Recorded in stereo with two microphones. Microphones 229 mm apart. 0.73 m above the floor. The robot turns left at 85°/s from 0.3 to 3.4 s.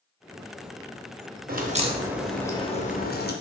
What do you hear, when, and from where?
1.5 s a crack: 115° right, 0.5 m; by 3.3 s 90° left, 0.5 m